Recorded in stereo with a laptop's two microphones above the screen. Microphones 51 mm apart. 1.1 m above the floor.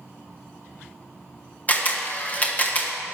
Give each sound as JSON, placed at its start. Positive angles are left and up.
{"t": 1.7, "sound": "a camera shutter", "side_deg": 30, "distance_m": 1.0}